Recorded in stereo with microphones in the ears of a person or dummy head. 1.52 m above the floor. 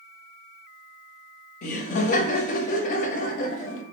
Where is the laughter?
50° left (ahead or behind), 0.6 m.